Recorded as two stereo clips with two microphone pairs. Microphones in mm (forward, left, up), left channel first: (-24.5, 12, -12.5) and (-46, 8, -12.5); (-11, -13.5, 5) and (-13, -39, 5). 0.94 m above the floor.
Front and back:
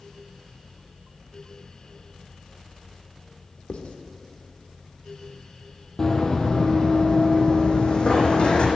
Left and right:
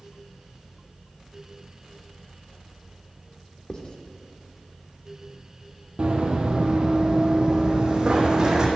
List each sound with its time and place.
3.7 s writing: 30° left, 1.4 m
6.0 s running footsteps: 60° right, 1.6 m; by 8.7 s 35° right, 2.5 m